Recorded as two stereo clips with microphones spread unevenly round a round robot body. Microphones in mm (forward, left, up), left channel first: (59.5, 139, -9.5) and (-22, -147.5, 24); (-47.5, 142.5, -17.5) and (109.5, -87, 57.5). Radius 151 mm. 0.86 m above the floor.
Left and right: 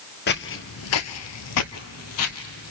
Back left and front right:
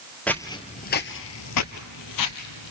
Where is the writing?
No writing in this recording.